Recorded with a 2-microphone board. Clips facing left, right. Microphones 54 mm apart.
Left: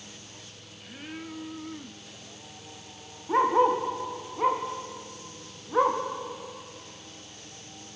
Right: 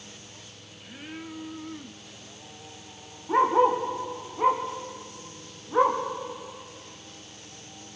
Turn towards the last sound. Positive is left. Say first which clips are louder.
# right 1 dB
turn(degrees=0)  # may be behind; listen again after turning